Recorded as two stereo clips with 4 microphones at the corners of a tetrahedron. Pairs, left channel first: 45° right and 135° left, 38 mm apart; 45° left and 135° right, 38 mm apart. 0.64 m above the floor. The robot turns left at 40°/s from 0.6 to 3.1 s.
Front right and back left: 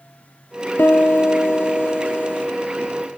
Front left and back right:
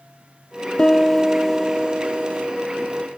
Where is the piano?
25° right, 1.1 m; by 2.5 s 90° right, 1.1 m.